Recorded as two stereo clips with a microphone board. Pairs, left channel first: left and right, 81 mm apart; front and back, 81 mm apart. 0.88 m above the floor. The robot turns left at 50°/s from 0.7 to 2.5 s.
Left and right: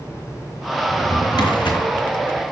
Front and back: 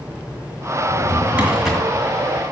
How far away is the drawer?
About 2.5 m.